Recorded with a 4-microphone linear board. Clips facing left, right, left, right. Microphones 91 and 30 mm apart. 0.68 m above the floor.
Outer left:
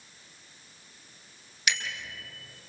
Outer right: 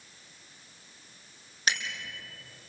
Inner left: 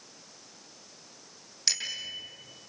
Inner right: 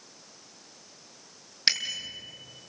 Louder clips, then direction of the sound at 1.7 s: Outer right 1 dB, inner right 4 dB; 40° right (ahead or behind).